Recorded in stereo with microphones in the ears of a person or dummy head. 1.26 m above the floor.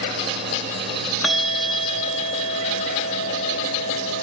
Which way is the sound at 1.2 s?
5° left (ahead or behind).